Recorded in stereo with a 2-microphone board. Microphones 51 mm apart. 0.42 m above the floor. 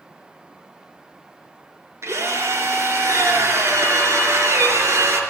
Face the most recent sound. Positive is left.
turn(degrees=-75)  # may be behind; listen again after turning